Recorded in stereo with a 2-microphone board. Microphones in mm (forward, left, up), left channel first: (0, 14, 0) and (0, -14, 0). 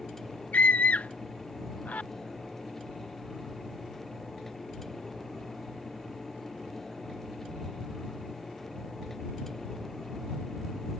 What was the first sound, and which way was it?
A scream, 75° left (ahead or behind).